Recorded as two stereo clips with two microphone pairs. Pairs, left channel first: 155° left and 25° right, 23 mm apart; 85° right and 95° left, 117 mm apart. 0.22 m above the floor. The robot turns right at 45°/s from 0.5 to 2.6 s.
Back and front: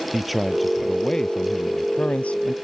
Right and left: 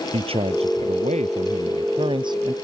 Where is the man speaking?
65° left; by 2.5 s 155° left.